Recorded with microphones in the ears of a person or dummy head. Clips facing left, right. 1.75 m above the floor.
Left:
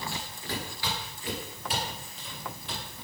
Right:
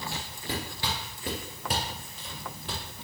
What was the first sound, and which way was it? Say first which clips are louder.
Footsteps: right 1 dB; centre (ahead or behind).